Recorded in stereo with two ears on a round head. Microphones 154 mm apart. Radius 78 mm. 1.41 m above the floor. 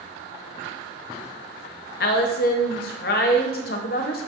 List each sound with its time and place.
2.0 s a woman speaking: 55° left (ahead or behind), 0.5 m